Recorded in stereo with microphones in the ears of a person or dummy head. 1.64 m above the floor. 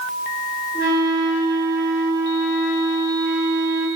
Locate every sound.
0.7 s a flute: 40° right (ahead or behind), 1.9 m